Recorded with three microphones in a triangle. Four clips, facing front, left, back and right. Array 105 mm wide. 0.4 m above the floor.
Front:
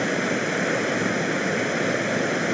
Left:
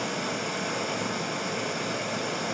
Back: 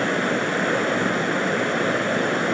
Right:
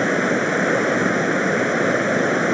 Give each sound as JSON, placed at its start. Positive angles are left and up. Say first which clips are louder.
{"t": 0.0, "sound": "running water", "louder": "right 12 dB, back 2 dB", "azimuth_deg": -95, "distance_m": 0.9}